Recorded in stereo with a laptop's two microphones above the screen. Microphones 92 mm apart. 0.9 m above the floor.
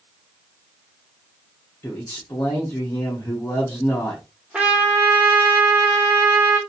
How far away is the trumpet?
About 1.2 m.